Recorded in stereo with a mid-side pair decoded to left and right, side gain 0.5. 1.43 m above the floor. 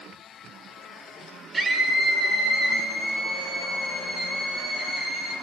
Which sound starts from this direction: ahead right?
A scream, at 1.5 s.